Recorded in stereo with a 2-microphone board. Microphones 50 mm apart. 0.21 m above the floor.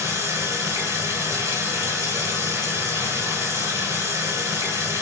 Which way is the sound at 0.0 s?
70° right (ahead or behind).